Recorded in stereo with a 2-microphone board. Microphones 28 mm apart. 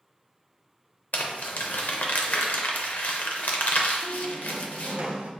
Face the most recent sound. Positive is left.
turn(degrees=-60)  # may be behind; listen again after turning